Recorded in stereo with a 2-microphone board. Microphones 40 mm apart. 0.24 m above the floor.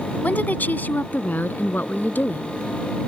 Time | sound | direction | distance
0.2 | a woman speaking | 50° left (ahead or behind) | ?